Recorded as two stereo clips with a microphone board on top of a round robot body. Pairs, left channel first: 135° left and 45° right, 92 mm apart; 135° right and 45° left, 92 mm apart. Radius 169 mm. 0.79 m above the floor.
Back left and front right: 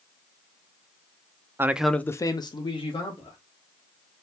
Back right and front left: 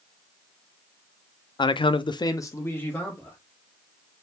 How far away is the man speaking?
About 0.5 m.